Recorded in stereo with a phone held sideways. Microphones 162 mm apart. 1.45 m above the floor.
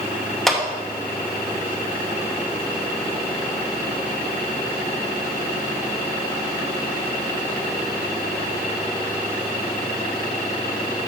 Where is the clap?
Centre (ahead or behind), 1.2 m.